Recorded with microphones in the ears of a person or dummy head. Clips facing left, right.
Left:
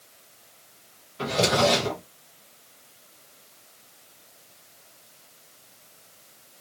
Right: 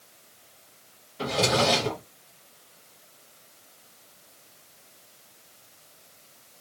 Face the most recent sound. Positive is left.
turn(degrees=5)  # may be behind; listen again after turning